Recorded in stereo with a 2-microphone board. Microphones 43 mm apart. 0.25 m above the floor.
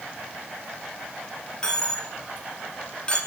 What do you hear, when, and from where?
1.6 s a dropped coin: 25° left (ahead or behind), 0.9 m